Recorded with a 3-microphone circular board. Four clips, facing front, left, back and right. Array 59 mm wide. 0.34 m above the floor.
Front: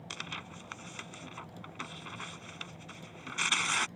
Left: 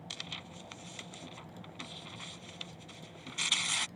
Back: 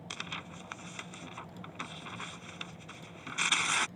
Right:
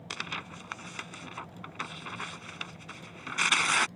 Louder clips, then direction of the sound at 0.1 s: Right 10 dB, even; 90° right.